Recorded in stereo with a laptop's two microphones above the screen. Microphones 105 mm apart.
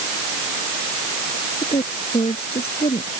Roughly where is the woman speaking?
Left.